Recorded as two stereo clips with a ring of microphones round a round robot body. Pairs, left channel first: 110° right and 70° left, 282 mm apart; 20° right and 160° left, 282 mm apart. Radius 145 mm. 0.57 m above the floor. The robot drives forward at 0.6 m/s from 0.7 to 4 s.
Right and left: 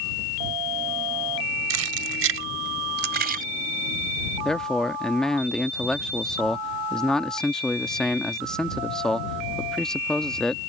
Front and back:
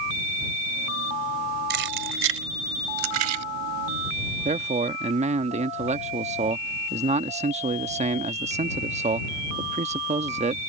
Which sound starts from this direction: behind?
A man speaking, at 4.5 s.